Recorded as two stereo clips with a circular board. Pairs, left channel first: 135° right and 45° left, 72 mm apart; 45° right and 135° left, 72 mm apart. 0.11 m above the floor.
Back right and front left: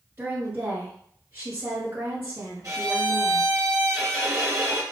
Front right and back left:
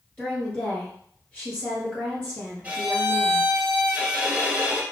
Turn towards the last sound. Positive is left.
turn(degrees=70)